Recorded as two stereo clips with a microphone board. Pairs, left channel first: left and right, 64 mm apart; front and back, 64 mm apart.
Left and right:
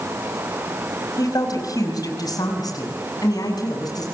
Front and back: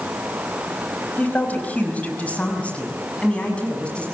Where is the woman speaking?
65° left, 5 m; by 4.0 s 75° left, 7.5 m.